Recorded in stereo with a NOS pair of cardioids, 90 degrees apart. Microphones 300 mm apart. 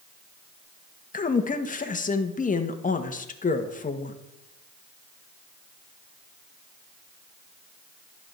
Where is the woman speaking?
25° left, 1.6 m.